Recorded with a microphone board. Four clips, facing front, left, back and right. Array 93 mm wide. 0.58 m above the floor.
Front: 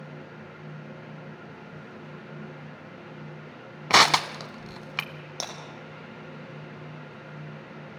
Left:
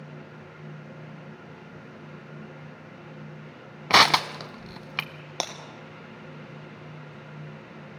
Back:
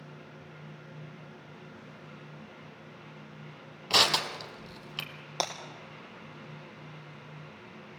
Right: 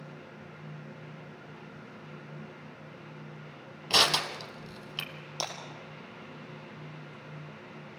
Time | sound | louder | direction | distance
3.9 | crushing | left 9 dB, front 8 dB | 50° left | 0.9 m
5.4 | breaking glass | left 4 dB, back 5 dB | 115° left | 2.5 m